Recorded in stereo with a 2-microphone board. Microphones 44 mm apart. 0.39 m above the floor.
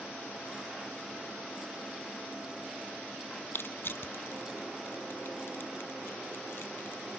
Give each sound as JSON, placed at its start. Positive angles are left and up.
{"t": 3.5, "sound": "crushing", "side_deg": 55, "distance_m": 0.7}